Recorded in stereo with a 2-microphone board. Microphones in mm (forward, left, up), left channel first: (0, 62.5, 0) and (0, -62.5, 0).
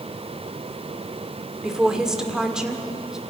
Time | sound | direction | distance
1.6 | a woman speaking | 5° right (ahead or behind) | 2 m